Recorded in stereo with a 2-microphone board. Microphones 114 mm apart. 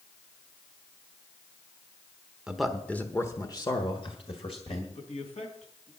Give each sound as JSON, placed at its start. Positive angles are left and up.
{"t": 2.5, "sound": "a man speaking", "side_deg": -10, "distance_m": 1.0}
{"t": 5.0, "sound": "a man speaking", "side_deg": 75, "distance_m": 3.5}